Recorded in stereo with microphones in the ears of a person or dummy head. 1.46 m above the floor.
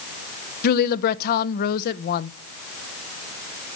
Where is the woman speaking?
50° left (ahead or behind), 0.8 m.